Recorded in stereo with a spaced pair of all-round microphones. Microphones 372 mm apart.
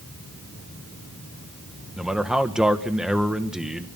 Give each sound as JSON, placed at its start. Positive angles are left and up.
{"t": 2.0, "sound": "a man speaking", "side_deg": 0, "distance_m": 2.0}